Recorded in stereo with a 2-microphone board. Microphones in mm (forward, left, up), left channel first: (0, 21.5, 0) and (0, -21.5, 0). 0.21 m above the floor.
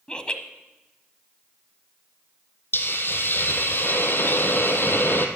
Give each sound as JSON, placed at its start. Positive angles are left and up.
{"t": 0.1, "sound": "laughter", "side_deg": 20, "distance_m": 1.1}
{"t": 2.7, "sound": "a hiss", "side_deg": 55, "distance_m": 1.4}